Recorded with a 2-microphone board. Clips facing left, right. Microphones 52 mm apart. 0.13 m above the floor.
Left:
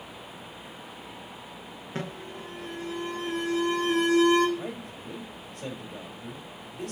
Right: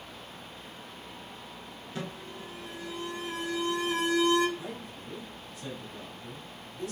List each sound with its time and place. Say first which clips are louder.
1.9 s an alarm: left 3 dB; 45° left (ahead or behind), 1.3 m
4.6 s a man speaking: left 4 dB; 65° left (ahead or behind), 3.5 m